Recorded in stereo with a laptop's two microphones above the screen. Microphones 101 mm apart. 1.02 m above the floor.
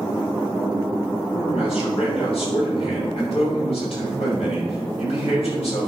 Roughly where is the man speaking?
Left.